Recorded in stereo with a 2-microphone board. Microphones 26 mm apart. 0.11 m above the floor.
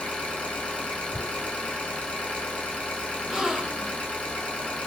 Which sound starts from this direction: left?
An engine running, at 0.0 s.